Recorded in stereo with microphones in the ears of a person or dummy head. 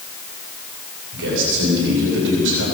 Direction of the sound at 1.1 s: 70° right (ahead or behind).